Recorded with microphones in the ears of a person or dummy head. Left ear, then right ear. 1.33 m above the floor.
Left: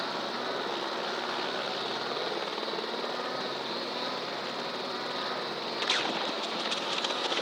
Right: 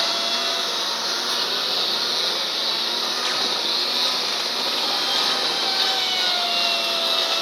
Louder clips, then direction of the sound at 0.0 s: Right 11 dB; 80° right.